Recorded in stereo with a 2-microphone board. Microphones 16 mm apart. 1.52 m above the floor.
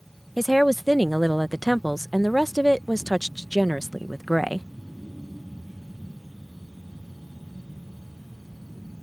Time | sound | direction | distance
0.4 | a woman speaking | centre (ahead or behind) | ?